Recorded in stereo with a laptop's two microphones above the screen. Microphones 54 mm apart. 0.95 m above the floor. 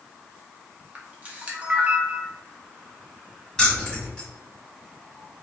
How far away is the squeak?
I don't hear a squeak.